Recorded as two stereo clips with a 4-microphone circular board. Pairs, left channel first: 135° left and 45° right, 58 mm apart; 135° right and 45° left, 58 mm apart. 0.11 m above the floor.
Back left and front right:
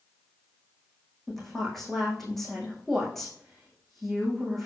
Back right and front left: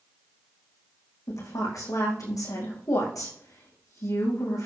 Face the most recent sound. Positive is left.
turn(degrees=-140)